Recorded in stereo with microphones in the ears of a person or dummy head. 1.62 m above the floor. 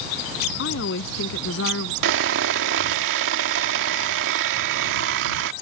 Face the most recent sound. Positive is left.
turn(degrees=-65)  # may be behind; listen again after turning